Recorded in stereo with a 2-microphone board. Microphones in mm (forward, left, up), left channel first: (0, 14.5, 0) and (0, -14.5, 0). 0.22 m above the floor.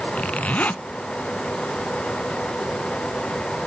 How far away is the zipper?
About 0.6 m.